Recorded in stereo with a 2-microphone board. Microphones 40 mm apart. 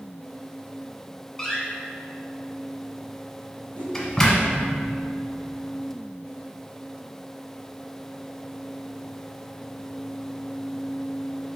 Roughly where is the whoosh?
Right.